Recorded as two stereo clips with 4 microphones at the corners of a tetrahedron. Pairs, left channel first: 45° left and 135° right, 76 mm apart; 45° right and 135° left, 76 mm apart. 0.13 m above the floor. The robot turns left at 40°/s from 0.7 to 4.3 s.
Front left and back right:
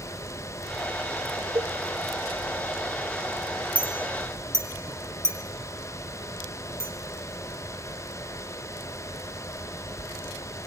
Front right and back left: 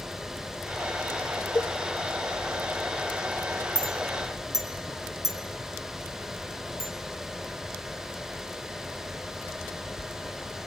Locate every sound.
1.6 s a cowbell: 100° right, 0.5 m; by 1.7 s 110° right, 0.5 m
3.8 s a clink: 60° right, 2.5 m; by 6.9 s 85° right, 2.5 m